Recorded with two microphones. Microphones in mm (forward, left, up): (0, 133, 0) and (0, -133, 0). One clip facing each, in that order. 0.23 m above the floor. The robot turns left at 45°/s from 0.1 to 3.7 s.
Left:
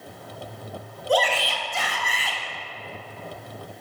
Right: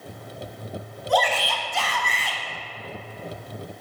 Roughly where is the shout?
Ahead left.